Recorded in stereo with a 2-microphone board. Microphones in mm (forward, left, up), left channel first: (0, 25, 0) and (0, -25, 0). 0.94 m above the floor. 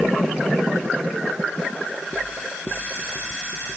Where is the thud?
No thud in this recording.